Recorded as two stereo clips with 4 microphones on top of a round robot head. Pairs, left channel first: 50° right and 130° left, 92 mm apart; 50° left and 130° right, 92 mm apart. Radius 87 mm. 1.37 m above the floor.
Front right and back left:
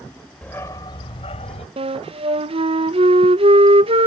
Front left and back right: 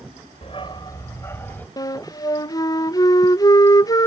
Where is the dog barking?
25° left; by 1.7 s 25° right.